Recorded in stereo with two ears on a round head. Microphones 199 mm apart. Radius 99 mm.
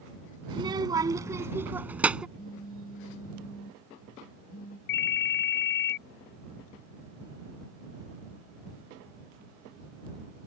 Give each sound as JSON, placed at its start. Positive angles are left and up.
{"t": 0.5, "sound": "a child speaking", "side_deg": -20}
{"t": 2.4, "sound": "a phone buzzing", "side_deg": 40}
{"t": 4.9, "sound": "a ringtone", "side_deg": 45}